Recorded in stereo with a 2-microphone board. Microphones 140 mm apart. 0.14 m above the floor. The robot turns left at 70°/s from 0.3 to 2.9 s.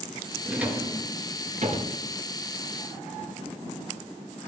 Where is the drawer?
Centre (ahead or behind), 1.3 m; by 2.0 s 55° right (ahead or behind), 1.3 m.